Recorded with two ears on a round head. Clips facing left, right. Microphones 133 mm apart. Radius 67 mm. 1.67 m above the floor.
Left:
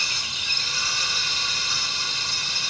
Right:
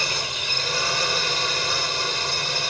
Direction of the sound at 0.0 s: 45° right (ahead or behind).